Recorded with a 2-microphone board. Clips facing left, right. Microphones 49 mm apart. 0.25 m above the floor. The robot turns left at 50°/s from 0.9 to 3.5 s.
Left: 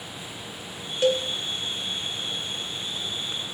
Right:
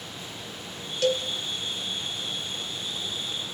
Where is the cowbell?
25° left (ahead or behind), 0.7 m; by 1.3 s 30° left (ahead or behind), 0.7 m.